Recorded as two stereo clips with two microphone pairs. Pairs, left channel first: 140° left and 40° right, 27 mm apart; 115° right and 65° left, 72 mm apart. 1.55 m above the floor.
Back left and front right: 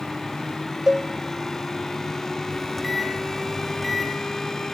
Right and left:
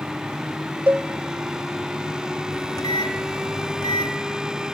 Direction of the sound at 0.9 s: 20° left.